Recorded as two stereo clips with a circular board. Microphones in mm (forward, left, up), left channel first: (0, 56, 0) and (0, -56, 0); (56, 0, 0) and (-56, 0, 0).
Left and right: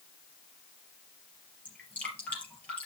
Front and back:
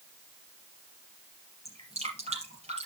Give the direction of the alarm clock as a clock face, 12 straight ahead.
I don't hear an alarm clock.